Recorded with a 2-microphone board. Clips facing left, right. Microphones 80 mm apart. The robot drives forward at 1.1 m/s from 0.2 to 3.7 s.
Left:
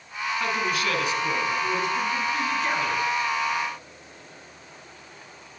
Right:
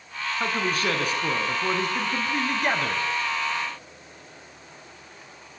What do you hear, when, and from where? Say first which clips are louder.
0.4 s a man speaking: right 1 dB; 35° right (ahead or behind), 6 m; by 3.0 s 60° right (ahead or behind), 4 m